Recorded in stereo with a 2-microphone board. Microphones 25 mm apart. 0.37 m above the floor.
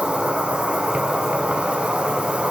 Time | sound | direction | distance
0.0 | an insect | 55° right (ahead or behind) | 0.9 m